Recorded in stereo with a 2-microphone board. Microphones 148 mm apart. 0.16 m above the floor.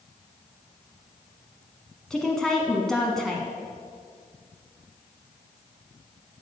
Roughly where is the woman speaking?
Centre.